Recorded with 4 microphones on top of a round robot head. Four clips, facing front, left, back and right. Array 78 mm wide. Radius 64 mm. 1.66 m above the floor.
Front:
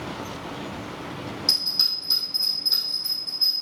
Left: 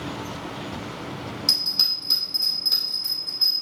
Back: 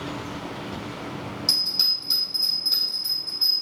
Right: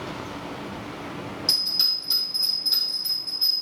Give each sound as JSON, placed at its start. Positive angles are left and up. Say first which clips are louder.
{"t": 1.5, "sound": "a bell", "louder": "left 1 dB, even", "azimuth_deg": 95, "distance_m": 4.0}